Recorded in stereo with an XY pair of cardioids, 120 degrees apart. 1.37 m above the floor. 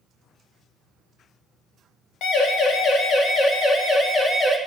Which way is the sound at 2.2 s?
65° left.